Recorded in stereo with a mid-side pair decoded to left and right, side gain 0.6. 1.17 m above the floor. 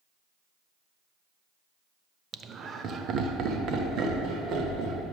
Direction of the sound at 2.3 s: 30° right.